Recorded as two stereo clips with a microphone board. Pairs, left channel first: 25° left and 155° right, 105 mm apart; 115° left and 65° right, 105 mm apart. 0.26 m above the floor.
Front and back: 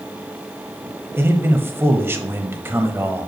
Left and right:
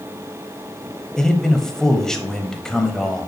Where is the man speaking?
170° right, 0.9 m.